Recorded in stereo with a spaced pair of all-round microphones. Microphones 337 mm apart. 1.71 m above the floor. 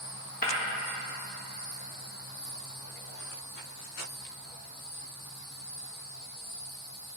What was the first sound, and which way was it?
Breaking glass, 25° left (ahead or behind).